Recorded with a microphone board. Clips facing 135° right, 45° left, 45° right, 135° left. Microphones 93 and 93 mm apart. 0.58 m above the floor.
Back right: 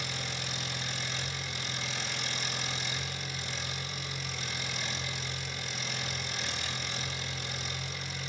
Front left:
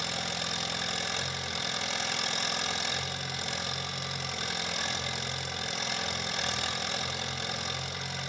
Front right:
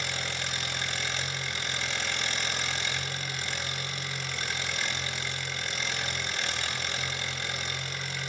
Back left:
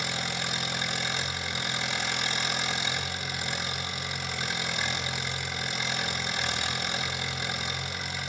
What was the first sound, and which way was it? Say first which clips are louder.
An engine running: front left 3 dB, back left 2 dB; 60° left.